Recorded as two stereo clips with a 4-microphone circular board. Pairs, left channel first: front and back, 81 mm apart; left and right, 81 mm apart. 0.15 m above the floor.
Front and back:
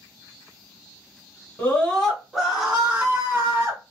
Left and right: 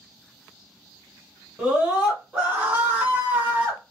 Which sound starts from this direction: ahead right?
A scream, at 1.6 s.